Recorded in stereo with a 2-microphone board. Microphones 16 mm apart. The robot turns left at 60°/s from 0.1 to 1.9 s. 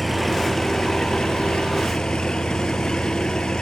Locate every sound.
0.0 s an engine running: 175° left; by 3.6 s 70° left